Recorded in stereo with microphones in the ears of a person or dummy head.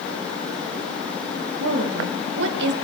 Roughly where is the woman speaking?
Right.